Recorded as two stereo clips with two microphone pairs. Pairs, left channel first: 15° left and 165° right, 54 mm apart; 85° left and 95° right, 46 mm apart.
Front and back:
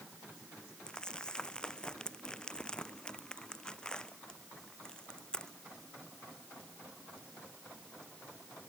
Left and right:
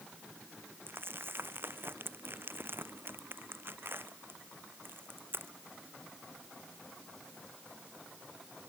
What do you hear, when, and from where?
0.9 s crumpling: 60° right